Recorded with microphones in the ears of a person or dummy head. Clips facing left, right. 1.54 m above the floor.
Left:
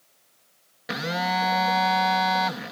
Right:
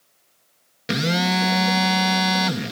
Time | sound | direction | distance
0.9 | a phone buzzing | 35° right (ahead or behind) | ?